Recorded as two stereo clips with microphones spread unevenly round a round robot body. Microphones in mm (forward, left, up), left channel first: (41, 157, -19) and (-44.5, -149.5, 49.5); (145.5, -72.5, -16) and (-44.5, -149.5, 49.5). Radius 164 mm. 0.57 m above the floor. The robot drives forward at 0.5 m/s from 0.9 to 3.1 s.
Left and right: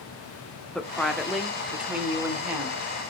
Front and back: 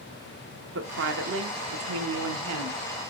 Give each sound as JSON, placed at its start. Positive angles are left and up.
{"t": 0.8, "sound": "a woman speaking", "azimuth_deg": 155, "distance_m": 1.1}